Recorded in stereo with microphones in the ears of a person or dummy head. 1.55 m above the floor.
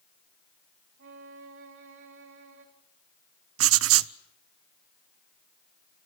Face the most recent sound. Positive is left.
turn(degrees=-70)  # may be behind; listen again after turning